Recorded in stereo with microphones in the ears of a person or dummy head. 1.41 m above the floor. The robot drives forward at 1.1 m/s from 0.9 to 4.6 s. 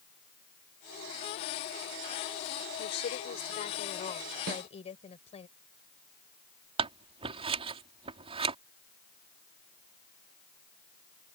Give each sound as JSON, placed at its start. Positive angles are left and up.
{"t": 2.8, "sound": "a woman speaking", "side_deg": 55}
{"t": 4.5, "sound": "a snare drum", "side_deg": -60}
{"t": 6.8, "sound": "scissors", "side_deg": -30}